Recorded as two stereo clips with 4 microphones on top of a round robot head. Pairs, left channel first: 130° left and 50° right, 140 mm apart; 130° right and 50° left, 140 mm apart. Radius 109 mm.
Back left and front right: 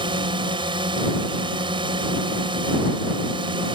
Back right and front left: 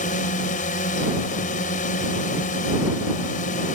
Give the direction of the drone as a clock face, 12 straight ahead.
3 o'clock.